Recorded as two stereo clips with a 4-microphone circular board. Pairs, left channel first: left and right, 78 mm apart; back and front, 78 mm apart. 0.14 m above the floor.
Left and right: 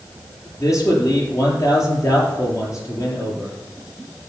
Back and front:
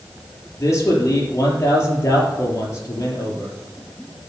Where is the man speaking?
130° left, 4 m.